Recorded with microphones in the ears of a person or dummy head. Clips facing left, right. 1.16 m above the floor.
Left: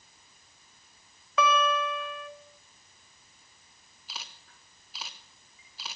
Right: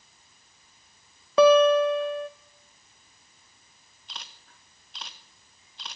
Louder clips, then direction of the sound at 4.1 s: Even; centre (ahead or behind).